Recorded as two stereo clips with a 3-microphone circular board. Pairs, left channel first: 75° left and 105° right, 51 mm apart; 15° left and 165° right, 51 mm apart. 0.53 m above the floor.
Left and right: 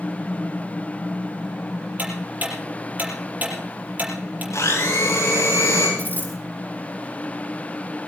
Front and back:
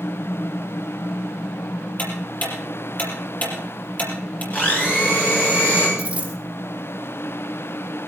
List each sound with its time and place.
2.0 s ticking: 45° right, 5.5 m
4.5 s a blender: 70° left, 7 m
6.0 s a dropped coin: 125° left, 3 m